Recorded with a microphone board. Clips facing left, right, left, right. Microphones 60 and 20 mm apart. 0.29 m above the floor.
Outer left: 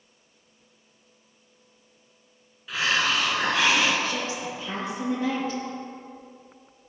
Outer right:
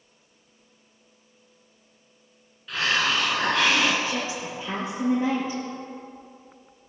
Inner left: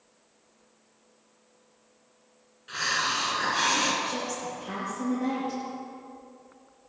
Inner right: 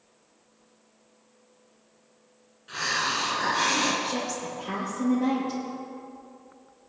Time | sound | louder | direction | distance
2.7 | a hiss | even, even | 5° left (ahead or behind) | 2.5 m
4.0 | a woman speaking | even, inner right 1 dB | 10° right (ahead or behind) | 5 m